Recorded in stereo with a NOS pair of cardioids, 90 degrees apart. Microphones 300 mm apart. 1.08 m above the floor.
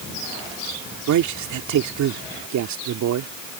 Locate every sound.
1.1 s a man speaking: 70° right